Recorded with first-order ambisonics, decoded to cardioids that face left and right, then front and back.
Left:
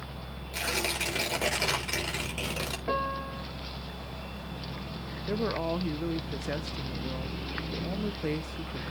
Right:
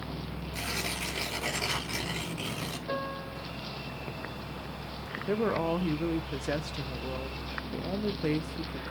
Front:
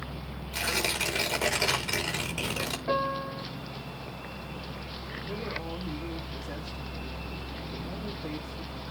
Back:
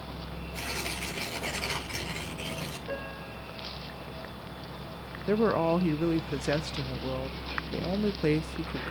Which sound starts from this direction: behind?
A woman speaking, at 5.3 s.